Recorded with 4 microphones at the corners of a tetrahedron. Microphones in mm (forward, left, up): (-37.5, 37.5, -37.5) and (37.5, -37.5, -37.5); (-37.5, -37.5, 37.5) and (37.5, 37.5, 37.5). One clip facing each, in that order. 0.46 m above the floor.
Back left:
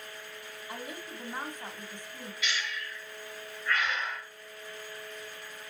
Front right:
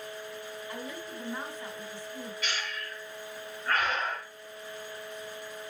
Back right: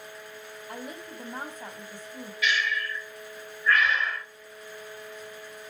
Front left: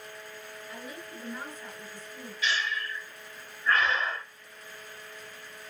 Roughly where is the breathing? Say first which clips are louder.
Back left 4 dB, back right 3 dB; ahead.